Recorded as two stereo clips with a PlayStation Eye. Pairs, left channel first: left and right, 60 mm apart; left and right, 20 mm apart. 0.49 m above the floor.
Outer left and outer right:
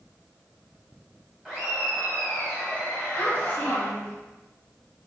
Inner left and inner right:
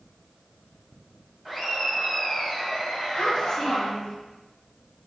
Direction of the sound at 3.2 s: 30° left (ahead or behind).